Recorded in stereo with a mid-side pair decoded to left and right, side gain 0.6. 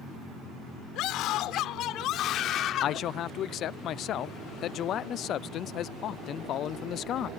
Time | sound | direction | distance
0.9 | a scream | 65° left | ?
2.8 | a man speaking | 55° left | ?